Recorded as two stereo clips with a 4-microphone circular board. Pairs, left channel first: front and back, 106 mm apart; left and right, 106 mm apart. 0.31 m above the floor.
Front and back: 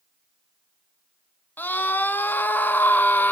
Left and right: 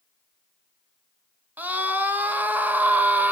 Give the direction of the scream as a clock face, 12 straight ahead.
1 o'clock.